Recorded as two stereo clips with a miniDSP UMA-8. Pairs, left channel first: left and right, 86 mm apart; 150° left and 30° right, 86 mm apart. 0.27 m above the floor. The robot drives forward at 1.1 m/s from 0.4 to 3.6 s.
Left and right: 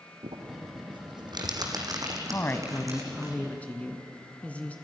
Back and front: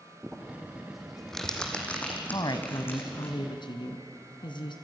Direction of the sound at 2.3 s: 145° left.